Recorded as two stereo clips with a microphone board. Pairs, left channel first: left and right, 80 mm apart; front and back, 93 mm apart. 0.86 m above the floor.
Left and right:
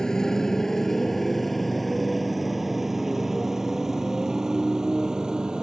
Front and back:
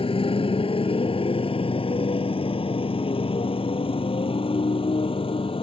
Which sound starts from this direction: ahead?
A motorcycle, at 0.0 s.